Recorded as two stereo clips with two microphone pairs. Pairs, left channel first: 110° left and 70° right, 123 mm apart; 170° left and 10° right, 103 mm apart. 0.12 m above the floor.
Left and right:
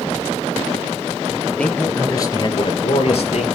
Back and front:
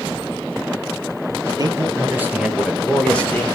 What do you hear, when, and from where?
1.6 s a man speaking: 30° left, 2.5 m; by 3.5 s 100° left, 3 m